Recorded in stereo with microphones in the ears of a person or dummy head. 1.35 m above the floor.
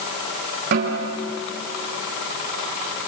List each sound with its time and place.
0.7 s a snare drum: 55° right (ahead or behind), 3.5 m